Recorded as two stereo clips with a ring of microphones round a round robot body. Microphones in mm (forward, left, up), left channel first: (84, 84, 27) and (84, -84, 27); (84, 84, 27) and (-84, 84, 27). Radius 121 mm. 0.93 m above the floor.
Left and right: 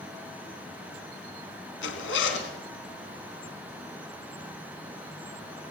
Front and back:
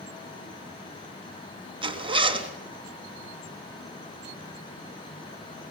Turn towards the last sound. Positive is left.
turn(degrees=120)